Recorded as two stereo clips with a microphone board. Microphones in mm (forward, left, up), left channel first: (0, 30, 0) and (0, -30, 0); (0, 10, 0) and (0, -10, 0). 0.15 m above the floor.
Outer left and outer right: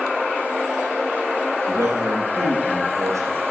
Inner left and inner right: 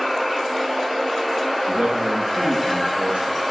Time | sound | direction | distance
1.7 | a man speaking | 55° right (ahead or behind) | 5.5 m